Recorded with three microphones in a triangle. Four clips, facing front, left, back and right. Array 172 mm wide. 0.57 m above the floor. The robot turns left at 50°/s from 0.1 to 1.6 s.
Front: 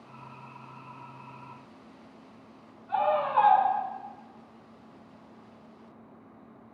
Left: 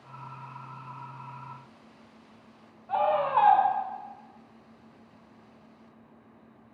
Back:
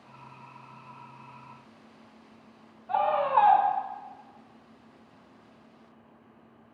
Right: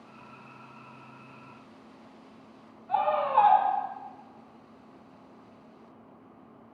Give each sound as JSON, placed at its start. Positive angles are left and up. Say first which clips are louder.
{"t": 2.9, "sound": "a scream", "louder": "even, back 1 dB", "azimuth_deg": 145, "distance_m": 1.6}